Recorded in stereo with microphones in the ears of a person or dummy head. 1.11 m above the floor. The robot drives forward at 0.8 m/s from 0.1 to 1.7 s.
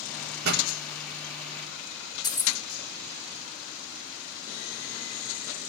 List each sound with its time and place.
0.4 s a pop: 55° right (ahead or behind), 3.5 m
2.2 s keys jangling: 25° left (ahead or behind), 0.8 m